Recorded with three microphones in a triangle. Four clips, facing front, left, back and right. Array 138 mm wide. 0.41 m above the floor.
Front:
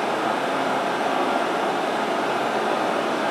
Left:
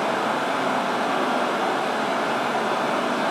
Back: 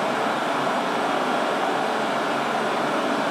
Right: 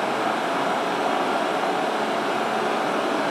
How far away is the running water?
About 1.5 m.